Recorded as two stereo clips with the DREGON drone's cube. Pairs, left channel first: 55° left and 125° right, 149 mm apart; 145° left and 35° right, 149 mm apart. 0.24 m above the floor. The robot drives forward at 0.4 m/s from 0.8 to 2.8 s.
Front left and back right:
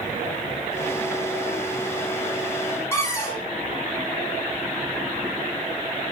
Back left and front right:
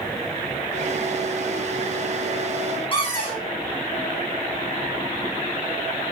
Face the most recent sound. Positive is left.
turn(degrees=115)